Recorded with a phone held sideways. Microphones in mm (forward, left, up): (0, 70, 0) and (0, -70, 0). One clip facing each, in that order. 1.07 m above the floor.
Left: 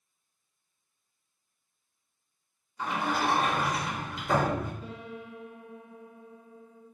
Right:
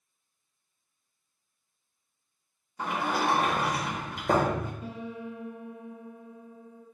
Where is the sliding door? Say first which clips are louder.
Right 1 dB; 55° right (ahead or behind), 1.1 m.